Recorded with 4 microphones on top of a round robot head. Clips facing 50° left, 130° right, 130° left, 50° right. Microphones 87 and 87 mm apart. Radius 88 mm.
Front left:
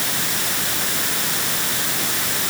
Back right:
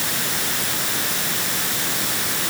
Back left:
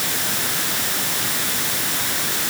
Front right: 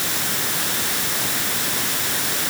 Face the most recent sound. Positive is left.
No sound to turn to.